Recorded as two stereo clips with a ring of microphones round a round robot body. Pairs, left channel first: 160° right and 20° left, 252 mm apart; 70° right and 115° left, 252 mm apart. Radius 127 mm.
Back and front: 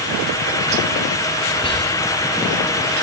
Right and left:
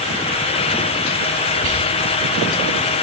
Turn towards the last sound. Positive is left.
turn(degrees=130)